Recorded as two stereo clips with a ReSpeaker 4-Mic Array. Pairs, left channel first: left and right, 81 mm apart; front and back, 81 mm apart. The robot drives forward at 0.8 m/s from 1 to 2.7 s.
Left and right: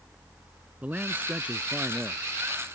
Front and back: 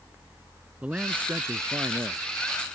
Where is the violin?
I don't hear a violin.